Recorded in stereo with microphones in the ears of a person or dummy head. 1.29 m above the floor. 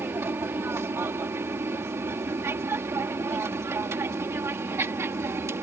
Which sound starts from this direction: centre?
An aircraft, at 0.0 s.